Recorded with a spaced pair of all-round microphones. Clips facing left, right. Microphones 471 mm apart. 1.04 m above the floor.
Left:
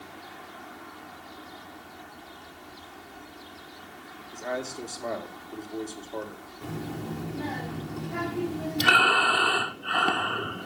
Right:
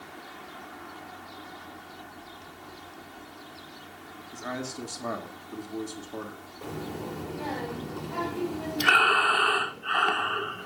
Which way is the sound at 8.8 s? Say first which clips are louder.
Left 2 dB; 55° left (ahead or behind).